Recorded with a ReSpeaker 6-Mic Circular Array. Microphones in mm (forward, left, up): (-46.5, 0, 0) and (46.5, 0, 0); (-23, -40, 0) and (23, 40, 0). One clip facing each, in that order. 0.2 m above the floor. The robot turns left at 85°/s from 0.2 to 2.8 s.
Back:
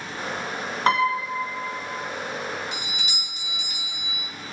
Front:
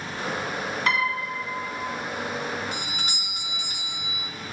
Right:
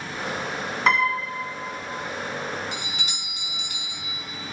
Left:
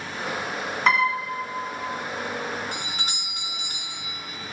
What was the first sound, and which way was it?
A piano, 150° left.